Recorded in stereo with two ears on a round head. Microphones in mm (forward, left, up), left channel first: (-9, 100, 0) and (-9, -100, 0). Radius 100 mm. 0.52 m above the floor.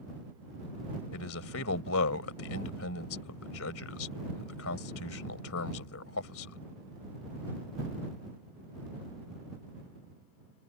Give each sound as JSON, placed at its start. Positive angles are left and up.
{"t": 1.1, "sound": "a man speaking", "side_deg": 70}